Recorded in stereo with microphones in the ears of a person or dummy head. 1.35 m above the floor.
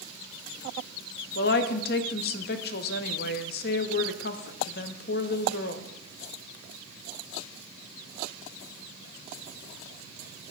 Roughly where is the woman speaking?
Left.